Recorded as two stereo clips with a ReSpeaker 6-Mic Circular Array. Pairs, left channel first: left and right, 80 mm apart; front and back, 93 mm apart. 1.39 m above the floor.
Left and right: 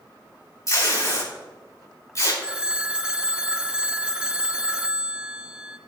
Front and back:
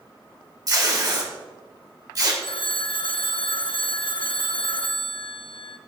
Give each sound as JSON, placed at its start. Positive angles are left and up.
{"t": 0.7, "sound": "tape being pulled", "azimuth_deg": 135, "distance_m": 4.0}
{"t": 2.4, "sound": "a phone ringing", "azimuth_deg": -15, "distance_m": 0.7}